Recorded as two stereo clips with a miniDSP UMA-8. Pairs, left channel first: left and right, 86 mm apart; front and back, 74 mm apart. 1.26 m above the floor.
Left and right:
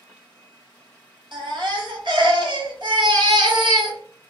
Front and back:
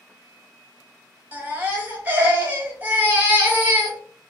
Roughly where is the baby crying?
Behind right.